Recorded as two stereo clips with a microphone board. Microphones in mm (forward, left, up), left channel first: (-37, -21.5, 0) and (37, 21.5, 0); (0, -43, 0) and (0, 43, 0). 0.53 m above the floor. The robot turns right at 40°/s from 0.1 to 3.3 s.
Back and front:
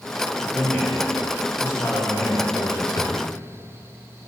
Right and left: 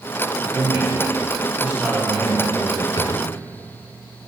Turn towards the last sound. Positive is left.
turn(degrees=-100)